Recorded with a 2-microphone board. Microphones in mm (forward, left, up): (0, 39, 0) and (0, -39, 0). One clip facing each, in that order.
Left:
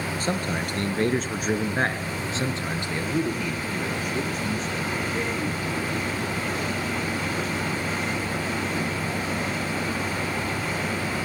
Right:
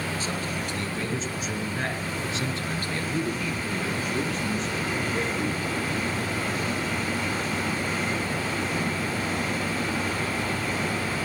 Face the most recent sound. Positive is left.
turn(degrees=-5)  # may be behind; listen again after turning